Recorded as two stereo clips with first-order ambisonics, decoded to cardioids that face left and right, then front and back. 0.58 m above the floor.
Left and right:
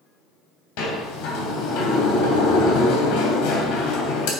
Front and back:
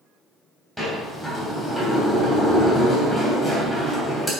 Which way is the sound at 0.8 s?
95° left.